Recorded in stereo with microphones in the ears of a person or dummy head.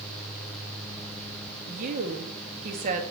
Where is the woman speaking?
45° right (ahead or behind), 2.5 m.